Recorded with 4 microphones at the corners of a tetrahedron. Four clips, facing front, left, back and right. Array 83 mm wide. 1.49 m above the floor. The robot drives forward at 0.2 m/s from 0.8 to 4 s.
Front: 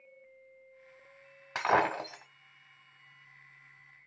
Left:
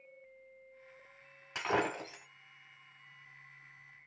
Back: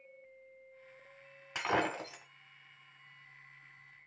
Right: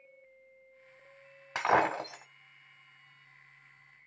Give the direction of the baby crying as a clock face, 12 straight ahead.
No baby crying in this recording.